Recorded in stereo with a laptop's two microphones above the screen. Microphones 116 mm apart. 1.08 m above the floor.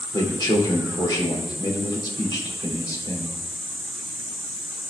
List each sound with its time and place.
0.1 s a man speaking: 35° left (ahead or behind), 3 m